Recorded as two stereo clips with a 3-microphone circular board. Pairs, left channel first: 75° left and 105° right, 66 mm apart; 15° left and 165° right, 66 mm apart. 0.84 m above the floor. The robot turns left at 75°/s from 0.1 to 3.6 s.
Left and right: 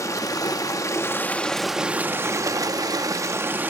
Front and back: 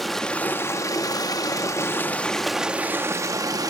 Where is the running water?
100° left, 0.8 m; by 3.7 s 160° right, 0.8 m.